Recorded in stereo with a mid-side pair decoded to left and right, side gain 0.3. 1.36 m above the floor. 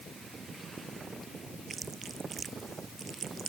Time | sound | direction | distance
1.7 | chewing | 60° right | ?